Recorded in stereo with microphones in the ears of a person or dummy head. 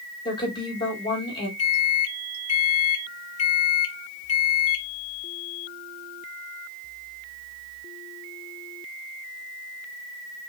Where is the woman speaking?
25° left (ahead or behind), 2 m.